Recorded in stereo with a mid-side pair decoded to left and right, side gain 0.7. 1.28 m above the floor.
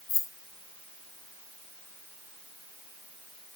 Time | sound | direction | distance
0.1 | keys jangling | 35° left | 2.5 m